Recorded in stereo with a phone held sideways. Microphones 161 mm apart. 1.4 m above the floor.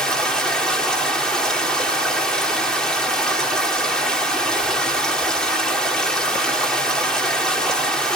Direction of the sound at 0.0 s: 5° left (ahead or behind).